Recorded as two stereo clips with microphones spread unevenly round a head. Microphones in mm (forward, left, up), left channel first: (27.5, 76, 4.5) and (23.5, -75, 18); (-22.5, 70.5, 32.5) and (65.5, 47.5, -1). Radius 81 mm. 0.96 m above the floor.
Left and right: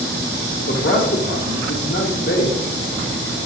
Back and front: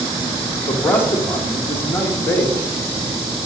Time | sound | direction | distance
0.7 | a man speaking | 90° left | 1.7 m